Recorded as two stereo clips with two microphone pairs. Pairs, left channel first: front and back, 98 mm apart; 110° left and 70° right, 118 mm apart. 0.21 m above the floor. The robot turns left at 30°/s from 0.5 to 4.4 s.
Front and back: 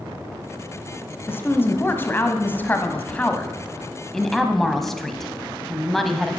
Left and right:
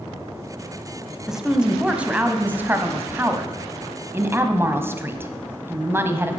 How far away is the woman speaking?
About 1.0 m.